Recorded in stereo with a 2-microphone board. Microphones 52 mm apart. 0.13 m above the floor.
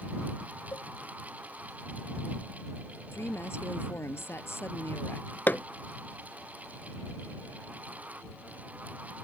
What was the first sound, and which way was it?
A cowbell, 75° left (ahead or behind).